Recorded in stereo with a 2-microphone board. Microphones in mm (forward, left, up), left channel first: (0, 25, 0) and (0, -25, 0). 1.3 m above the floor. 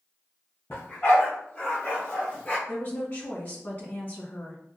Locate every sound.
0.7 s a dog barking: 50° left (ahead or behind), 2 m; by 2.6 s 30° left (ahead or behind), 1.0 m
2.7 s a woman speaking: 50° left (ahead or behind), 1.7 m